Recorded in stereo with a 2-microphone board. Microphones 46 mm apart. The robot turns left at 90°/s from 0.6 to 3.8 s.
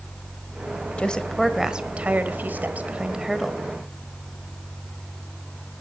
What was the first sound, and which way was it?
A woman speaking, 40° left.